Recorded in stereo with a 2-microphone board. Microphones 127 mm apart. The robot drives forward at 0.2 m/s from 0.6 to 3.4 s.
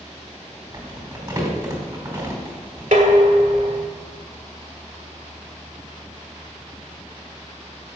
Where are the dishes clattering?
80° right, 1.5 m; by 3.8 s 75° right (ahead or behind), 1.5 m.